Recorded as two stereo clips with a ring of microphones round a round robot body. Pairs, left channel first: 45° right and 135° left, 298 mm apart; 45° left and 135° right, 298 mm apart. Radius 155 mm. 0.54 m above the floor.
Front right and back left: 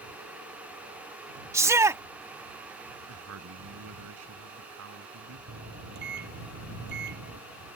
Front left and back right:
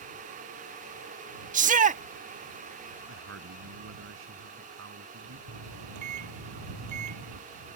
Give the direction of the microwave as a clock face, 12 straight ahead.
6 o'clock.